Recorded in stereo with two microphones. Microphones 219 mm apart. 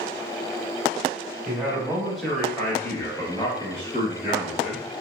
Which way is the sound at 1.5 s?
10° right (ahead or behind).